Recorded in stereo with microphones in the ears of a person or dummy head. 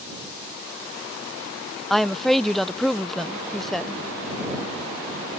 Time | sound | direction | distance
1.9 | a woman speaking | 5° right (ahead or behind) | ?